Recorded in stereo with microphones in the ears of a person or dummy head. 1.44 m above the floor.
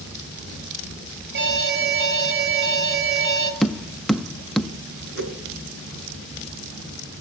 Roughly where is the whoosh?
Right.